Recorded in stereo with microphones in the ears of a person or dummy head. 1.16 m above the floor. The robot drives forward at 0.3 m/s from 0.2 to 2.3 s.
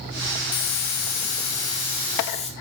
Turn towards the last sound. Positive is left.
turn(degrees=35)  # may be behind; listen again after turning